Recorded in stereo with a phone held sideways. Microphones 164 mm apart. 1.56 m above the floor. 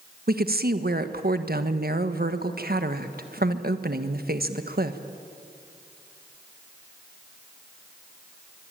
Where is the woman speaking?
75° right (ahead or behind), 1.3 m.